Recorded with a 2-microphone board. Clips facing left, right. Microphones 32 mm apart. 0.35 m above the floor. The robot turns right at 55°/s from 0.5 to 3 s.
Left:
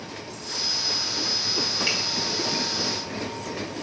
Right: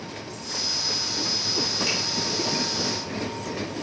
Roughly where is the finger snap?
Left.